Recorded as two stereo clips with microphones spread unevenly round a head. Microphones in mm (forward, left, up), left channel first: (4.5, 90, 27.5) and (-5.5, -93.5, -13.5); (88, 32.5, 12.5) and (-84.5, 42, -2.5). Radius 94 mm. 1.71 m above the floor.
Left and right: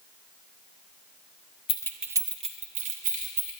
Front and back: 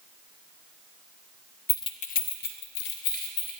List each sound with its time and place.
1.7 s keys jangling: 65° left, 0.7 m; by 3.5 s 45° right, 3 m